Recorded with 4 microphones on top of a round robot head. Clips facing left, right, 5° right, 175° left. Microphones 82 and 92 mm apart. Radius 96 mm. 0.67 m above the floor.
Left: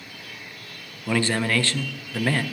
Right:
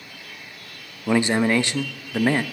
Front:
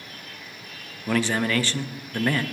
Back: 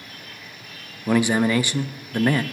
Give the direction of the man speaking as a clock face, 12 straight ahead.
4 o'clock.